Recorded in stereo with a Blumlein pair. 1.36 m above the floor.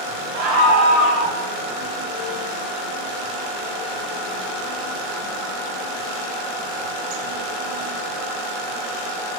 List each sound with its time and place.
0.3 s a scream: 30° right, 2.5 m; by 1.4 s 15° right, 2.5 m